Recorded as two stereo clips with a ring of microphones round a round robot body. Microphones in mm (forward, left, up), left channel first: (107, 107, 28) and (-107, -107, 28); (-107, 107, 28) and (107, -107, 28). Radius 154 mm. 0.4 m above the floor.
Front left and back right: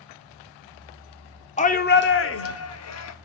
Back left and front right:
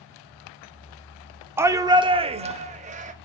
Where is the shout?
25° left, 0.8 m; by 3.1 s 20° left, 1.5 m.